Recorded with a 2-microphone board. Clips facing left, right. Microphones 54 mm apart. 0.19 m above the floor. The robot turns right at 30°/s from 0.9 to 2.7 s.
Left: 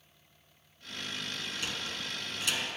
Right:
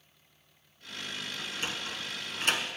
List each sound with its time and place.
1.4 s a sliding door: 25° right (ahead or behind), 0.7 m; by 2.7 s 55° right (ahead or behind), 0.7 m